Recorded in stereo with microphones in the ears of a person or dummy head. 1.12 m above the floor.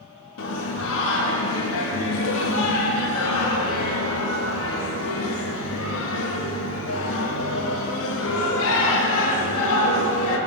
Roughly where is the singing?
Left.